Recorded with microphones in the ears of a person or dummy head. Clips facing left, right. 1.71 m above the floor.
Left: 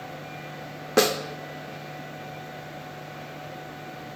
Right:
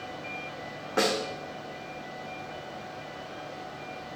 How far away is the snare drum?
About 0.6 m.